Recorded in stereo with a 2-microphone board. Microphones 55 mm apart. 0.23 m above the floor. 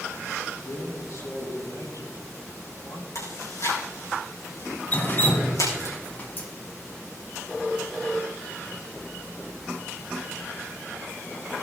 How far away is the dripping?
About 1.7 m.